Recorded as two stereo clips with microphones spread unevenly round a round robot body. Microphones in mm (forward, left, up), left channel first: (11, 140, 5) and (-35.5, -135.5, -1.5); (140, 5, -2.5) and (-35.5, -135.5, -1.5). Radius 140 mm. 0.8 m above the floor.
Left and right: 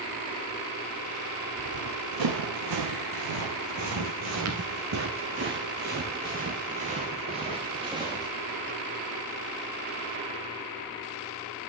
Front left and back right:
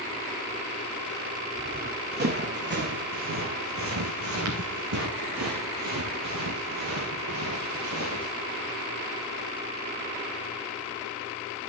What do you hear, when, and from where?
1.6 s running footsteps: 90° right, 3.5 m; by 8.3 s 175° right, 4.5 m